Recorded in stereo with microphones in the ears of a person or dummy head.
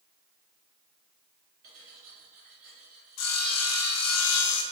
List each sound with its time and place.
1.6 s cutlery clinking: 45° right (ahead or behind), 1.6 m
3.2 s sawing: 75° left (ahead or behind), 0.6 m